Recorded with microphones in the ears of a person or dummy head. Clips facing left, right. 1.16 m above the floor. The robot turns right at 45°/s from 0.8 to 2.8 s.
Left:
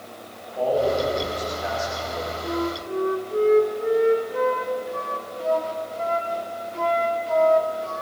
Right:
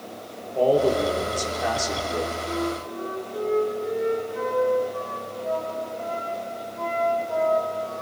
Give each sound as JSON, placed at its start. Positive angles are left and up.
{"t": 0.6, "sound": "a man speaking", "azimuth_deg": -130, "distance_m": 3.5}
{"t": 2.4, "sound": "a flute", "side_deg": 90, "distance_m": 2.0}